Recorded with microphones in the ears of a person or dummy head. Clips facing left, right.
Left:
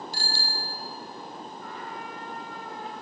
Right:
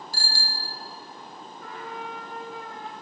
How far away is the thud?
I don't hear a thud.